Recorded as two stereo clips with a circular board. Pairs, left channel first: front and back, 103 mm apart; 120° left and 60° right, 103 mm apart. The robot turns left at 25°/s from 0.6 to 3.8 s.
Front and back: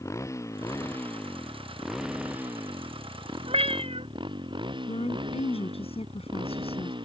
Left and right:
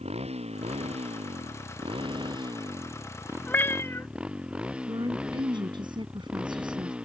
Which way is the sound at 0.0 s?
60° right.